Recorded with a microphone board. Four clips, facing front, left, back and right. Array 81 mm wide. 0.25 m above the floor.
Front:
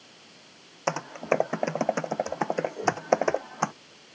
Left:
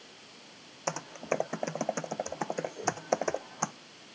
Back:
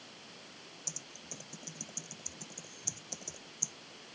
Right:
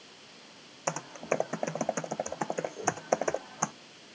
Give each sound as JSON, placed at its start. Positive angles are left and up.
{"t": 0.9, "sound": "typing on a keyboard", "azimuth_deg": 0}